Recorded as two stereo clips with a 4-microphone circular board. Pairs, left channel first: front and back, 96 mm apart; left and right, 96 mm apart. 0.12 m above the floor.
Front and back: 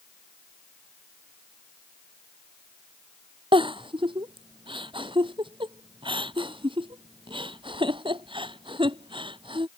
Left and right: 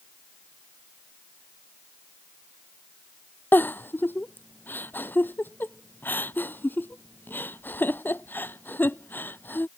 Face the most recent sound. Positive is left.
turn(degrees=160)